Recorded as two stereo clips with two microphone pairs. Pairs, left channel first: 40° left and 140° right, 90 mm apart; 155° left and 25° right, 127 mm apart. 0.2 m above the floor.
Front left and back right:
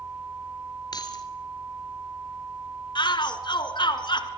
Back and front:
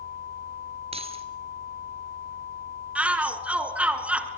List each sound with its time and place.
0.9 s keys jangling: 5° left, 3 m
3.0 s a shout: 55° left, 3 m